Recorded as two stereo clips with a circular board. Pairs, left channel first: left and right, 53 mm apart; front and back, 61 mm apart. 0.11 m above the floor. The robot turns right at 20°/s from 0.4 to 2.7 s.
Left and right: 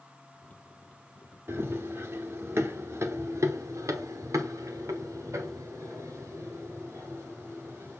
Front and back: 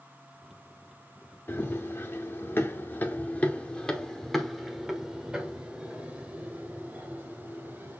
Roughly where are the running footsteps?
Ahead right.